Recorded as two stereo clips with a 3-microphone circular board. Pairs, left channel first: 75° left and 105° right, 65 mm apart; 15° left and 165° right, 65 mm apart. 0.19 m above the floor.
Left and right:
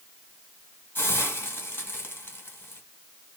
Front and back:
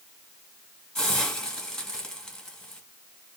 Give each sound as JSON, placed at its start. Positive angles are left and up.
{"t": 0.9, "sound": "a hiss", "azimuth_deg": 90, "distance_m": 1.9}